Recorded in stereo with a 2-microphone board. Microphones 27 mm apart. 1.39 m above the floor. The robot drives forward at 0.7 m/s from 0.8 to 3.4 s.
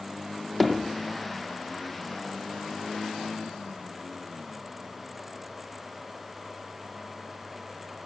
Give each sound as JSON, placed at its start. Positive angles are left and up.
{"t": 0.6, "sound": "hammering", "side_deg": 5, "distance_m": 1.0}